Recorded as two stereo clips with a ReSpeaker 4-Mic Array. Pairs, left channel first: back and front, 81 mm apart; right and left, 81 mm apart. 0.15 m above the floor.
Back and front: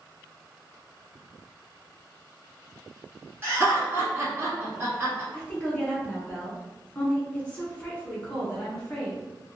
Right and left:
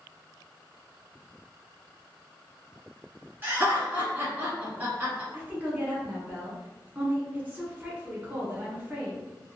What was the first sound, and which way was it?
Laughter, 45° left.